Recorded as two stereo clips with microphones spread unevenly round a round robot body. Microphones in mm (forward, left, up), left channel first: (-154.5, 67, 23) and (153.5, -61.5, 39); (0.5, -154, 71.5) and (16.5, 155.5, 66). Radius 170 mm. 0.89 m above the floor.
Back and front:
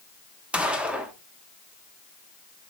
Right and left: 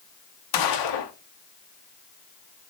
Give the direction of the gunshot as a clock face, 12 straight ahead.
4 o'clock.